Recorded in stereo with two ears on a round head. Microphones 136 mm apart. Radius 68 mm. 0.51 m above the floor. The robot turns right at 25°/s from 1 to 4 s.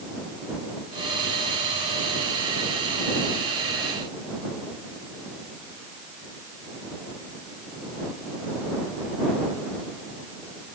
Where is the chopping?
I don't hear chopping.